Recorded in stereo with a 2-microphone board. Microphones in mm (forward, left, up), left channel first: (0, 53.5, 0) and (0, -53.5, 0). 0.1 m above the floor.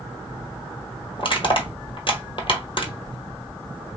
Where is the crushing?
50° left (ahead or behind), 1.1 m.